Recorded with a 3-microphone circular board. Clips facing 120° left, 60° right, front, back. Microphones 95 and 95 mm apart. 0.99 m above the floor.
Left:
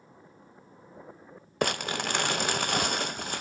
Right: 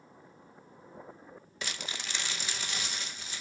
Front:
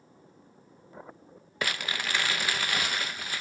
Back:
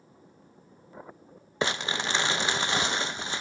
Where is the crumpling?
120° left, 0.5 m.